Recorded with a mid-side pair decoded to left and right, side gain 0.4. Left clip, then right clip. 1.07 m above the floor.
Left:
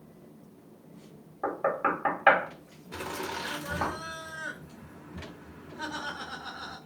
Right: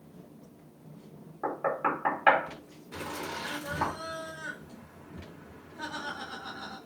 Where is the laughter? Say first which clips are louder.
Left 2 dB; 15° left, 1.0 m.